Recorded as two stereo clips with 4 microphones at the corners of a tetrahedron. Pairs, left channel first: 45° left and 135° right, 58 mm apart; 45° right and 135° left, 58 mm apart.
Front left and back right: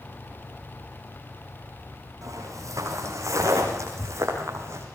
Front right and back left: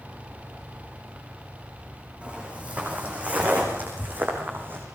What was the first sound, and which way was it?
Footsteps, 155° right.